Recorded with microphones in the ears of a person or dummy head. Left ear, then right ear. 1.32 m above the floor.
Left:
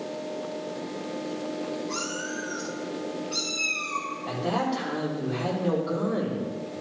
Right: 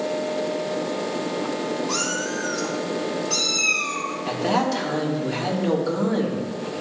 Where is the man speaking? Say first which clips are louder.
Right 6 dB; 70° right (ahead or behind), 3 m.